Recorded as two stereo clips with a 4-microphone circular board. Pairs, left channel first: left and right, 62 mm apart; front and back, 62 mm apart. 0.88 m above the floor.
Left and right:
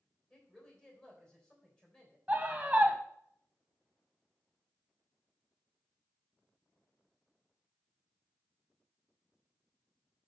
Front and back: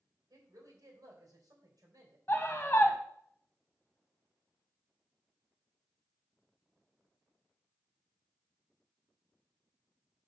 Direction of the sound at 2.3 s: 35° right.